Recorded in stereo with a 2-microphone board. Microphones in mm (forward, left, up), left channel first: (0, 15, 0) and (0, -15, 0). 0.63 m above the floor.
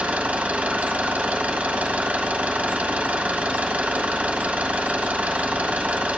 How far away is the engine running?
About 1.4 m.